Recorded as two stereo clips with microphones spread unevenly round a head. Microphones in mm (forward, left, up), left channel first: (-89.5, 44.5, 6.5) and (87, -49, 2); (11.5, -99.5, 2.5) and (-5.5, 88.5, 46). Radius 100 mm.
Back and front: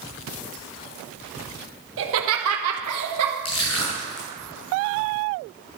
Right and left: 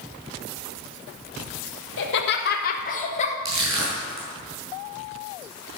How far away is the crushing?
About 5 m.